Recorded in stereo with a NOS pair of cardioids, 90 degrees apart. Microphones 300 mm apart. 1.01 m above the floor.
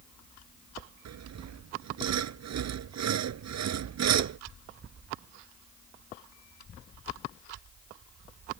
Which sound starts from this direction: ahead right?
Sawing, at 1.1 s.